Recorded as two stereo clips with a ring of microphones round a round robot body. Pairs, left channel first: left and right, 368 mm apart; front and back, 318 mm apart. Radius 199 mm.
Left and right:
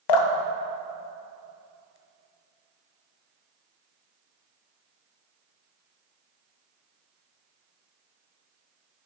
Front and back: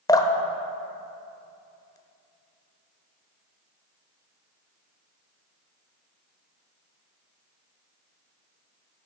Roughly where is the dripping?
Left.